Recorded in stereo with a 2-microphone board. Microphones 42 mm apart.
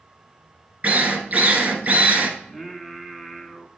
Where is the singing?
Centre (ahead or behind), 1.0 m.